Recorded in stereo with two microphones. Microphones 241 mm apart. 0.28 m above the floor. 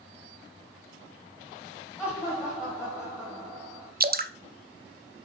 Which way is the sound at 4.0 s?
40° right (ahead or behind).